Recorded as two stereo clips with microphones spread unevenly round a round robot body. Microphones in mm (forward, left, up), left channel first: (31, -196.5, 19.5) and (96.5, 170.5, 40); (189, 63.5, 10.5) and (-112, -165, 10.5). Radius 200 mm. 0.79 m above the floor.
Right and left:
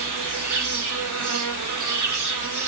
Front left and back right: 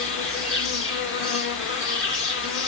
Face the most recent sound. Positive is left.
turn(degrees=80)